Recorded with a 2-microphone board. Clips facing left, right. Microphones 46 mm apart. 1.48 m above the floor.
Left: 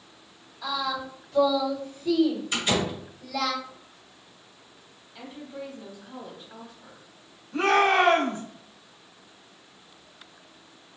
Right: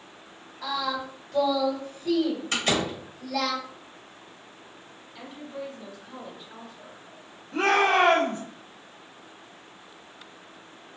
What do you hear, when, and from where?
0.6 s singing: 50° right (ahead or behind), 1.5 m
2.5 s a door slam: 60° right (ahead or behind), 1.5 m
5.2 s a woman speaking: centre (ahead or behind), 1.0 m
7.5 s a shout: 75° right (ahead or behind), 1.0 m